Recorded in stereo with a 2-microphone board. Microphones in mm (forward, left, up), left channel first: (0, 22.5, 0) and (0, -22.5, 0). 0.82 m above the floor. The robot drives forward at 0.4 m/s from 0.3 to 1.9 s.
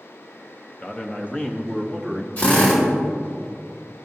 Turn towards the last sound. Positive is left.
turn(degrees=40)  # may be behind; listen again after turning